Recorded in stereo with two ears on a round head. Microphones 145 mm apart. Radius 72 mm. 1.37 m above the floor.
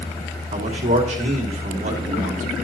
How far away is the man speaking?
About 2 m.